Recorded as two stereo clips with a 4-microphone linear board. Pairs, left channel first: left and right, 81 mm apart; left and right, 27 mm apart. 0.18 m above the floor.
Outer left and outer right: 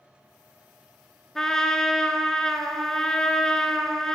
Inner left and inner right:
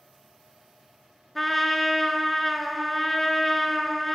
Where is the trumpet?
5° left (ahead or behind), 0.5 m.